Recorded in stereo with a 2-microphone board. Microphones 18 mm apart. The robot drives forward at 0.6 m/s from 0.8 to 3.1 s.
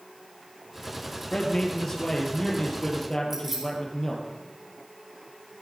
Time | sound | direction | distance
1.3 | a man speaking | 50° left (ahead or behind) | 4 m
3.3 | keys jangling | 30° right (ahead or behind) | 7 m